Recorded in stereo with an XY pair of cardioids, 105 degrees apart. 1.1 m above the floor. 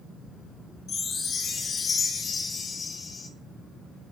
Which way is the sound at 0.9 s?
40° left.